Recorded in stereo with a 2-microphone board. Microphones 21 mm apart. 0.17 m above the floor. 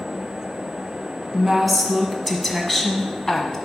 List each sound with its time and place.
1.3 s a woman speaking: centre (ahead or behind), 1.4 m; by 3.6 s 20° left (ahead or behind), 1.3 m